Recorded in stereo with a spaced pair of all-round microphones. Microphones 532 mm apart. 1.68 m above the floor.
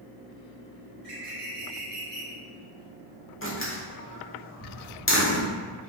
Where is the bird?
70° right (ahead or behind), 1.1 m.